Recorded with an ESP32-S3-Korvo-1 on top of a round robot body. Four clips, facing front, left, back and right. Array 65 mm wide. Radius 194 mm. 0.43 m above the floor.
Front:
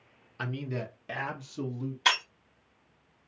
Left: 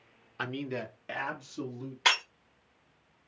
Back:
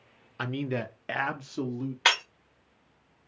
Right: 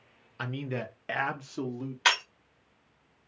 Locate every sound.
0.4 s a man speaking: 150° left, 0.8 m; by 1.9 s 135° right, 1.3 m
2.0 s breaking glass: straight behind, 1.5 m